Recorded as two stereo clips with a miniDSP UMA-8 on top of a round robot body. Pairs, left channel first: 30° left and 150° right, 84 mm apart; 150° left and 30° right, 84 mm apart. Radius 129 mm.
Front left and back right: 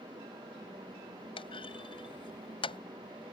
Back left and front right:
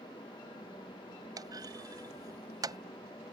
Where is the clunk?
15° left.